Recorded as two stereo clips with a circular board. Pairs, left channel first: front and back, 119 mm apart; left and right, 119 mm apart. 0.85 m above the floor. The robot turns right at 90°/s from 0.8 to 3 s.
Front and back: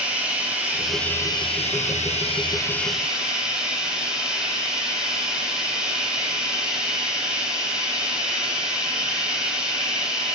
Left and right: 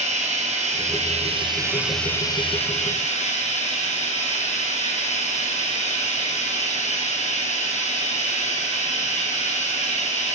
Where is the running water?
100° right, 3 m; by 10.3 s 95° left, 3 m.